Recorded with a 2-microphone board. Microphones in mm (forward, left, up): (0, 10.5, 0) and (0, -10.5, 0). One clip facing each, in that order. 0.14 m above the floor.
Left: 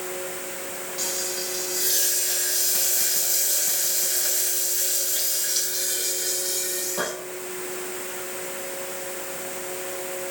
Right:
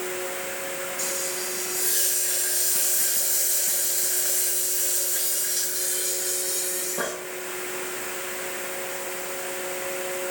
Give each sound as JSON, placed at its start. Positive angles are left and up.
{"t": 1.0, "sound": "frying", "side_deg": 60, "distance_m": 6.0}